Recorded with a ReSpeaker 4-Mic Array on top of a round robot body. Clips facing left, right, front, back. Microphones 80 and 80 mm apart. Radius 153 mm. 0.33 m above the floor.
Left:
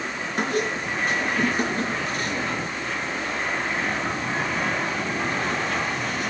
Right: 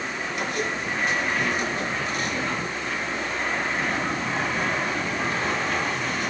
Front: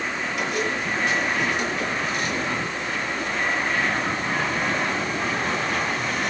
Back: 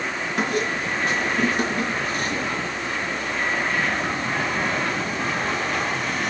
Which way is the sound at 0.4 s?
140° left.